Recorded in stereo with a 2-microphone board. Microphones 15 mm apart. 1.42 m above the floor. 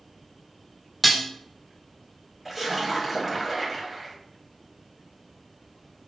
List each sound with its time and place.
1.0 s dishes clattering: centre (ahead or behind), 0.5 m
2.5 s a splash: 15° right (ahead or behind), 1.1 m